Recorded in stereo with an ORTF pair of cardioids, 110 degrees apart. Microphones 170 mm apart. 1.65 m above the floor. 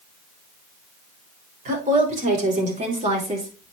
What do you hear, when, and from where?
1.6 s a woman speaking: 50° right, 3 m; by 3.7 s 35° right, 2.5 m